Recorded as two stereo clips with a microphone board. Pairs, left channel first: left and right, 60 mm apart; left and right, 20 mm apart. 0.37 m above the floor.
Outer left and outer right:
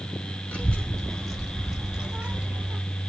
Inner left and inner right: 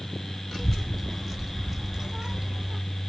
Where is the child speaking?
20° left (ahead or behind), 1.4 m; by 2.8 s 30° right (ahead or behind), 1.4 m.